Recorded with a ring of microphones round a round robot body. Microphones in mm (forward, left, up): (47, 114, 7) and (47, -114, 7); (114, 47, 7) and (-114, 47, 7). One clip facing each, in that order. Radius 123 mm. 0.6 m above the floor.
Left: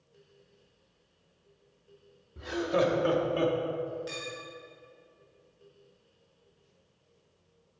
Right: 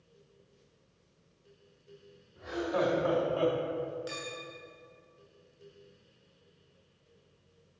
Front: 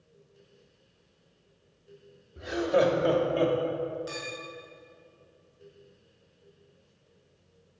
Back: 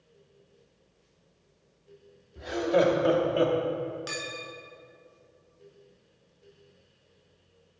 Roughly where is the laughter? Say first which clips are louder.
Left 3 dB, even; left.